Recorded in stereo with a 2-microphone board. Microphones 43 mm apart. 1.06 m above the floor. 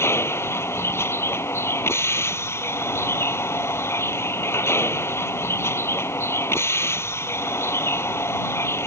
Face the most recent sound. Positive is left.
turn(degrees=85)